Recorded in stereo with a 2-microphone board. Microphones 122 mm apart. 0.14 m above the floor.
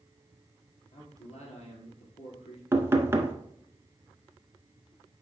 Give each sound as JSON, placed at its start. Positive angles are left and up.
{"t": 0.9, "sound": "a man speaking", "side_deg": 60, "distance_m": 3.0}
{"t": 2.7, "sound": "knocking", "side_deg": -20, "distance_m": 1.1}